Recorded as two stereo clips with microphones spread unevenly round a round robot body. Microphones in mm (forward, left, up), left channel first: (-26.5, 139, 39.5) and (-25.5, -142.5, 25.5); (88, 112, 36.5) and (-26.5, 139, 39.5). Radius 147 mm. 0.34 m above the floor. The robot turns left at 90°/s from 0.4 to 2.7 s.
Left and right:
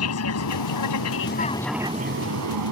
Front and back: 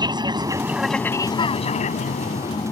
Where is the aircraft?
120° left; by 2.7 s 90° right.